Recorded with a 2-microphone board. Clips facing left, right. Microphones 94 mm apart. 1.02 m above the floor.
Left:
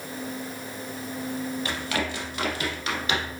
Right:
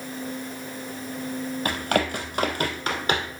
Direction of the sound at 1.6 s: 50° right (ahead or behind).